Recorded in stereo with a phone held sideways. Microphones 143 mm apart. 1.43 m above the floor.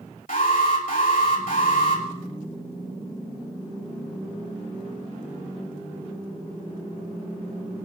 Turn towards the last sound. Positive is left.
turn(degrees=70)  # may be behind; listen again after turning